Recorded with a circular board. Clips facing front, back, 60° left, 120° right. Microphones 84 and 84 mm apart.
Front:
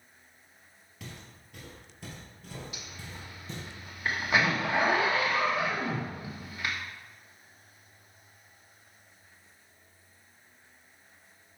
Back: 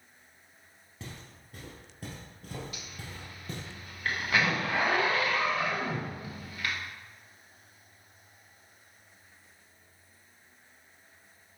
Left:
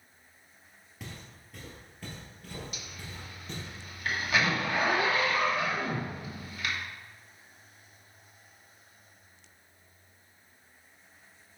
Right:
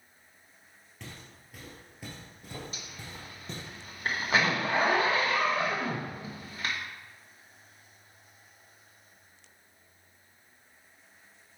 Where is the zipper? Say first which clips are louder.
Even, even; 70° right, 1.1 m.